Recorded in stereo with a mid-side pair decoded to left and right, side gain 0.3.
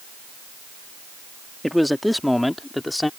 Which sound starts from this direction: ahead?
A man speaking, at 1.6 s.